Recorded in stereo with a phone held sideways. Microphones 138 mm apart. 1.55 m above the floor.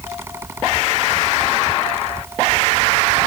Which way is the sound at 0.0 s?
20° right (ahead or behind).